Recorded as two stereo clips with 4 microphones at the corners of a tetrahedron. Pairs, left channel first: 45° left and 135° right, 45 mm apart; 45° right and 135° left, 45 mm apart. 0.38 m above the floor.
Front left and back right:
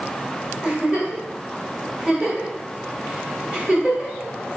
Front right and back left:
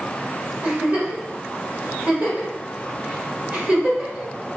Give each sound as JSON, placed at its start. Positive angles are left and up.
{"t": 0.6, "sound": "a giggle", "azimuth_deg": 170, "distance_m": 1.4}